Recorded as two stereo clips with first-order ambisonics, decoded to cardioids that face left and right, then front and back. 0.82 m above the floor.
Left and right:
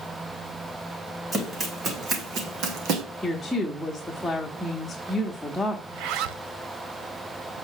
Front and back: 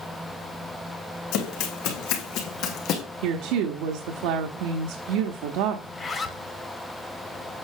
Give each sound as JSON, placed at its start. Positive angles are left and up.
{"t": 1.3, "sound": "running footsteps", "azimuth_deg": -15, "distance_m": 2.5}
{"t": 3.2, "sound": "a woman speaking", "azimuth_deg": 175, "distance_m": 1.2}
{"t": 5.9, "sound": "a zipper", "azimuth_deg": -75, "distance_m": 1.0}